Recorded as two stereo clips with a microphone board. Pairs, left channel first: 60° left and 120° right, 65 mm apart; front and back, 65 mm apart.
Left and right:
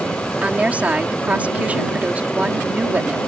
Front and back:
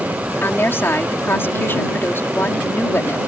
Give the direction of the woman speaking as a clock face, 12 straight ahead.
2 o'clock.